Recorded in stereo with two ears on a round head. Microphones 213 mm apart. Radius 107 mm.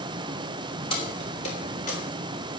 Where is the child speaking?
No child speaking in this recording.